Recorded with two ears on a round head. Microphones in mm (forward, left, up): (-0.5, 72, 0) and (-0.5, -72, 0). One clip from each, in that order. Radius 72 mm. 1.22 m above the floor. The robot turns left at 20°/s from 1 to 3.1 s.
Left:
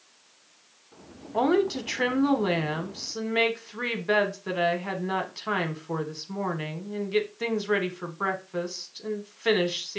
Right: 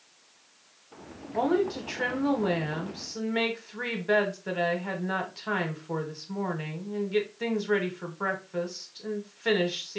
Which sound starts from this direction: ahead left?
A woman speaking, at 1.3 s.